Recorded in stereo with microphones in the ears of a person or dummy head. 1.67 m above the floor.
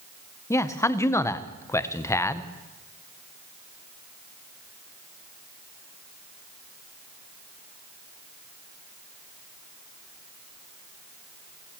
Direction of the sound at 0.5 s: 10° left (ahead or behind).